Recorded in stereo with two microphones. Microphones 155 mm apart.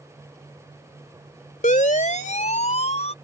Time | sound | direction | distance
1.6 | a siren | 55° left (ahead or behind) | ?